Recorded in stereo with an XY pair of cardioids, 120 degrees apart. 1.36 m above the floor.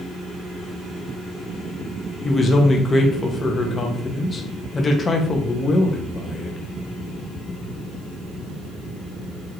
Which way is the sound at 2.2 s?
25° left.